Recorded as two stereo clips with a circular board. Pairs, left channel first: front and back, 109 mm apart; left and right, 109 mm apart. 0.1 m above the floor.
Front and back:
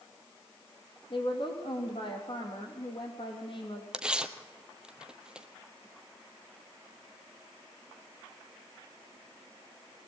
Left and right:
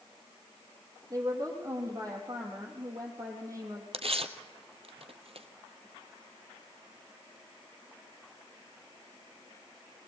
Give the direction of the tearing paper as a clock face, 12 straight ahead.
3 o'clock.